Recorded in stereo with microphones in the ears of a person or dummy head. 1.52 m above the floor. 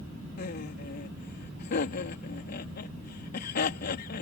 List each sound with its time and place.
0.4 s laughter: 50° left (ahead or behind)